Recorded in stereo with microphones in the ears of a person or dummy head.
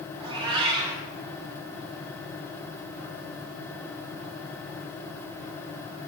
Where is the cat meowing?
25° right (ahead or behind), 1.2 m.